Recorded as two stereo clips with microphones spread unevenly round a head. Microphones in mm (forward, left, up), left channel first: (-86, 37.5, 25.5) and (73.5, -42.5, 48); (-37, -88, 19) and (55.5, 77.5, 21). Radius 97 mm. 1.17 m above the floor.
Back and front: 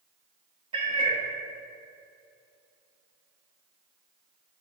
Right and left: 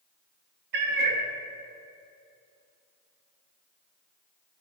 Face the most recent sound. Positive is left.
turn(degrees=35)